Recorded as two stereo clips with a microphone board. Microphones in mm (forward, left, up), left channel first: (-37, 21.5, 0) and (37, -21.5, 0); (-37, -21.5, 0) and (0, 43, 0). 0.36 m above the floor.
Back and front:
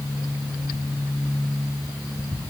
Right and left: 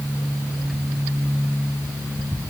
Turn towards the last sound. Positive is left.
No sound to turn to.